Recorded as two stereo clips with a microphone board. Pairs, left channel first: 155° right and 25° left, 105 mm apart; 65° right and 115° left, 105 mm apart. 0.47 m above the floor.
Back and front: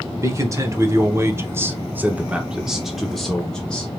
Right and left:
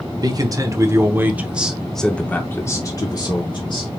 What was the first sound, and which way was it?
A man speaking, 75° left.